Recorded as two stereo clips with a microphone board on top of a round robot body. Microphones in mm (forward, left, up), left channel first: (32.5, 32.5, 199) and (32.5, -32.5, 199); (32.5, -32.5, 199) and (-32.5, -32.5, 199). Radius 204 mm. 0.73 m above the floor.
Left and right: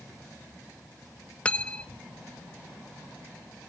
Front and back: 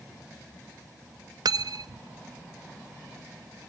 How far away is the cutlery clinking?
About 0.5 m.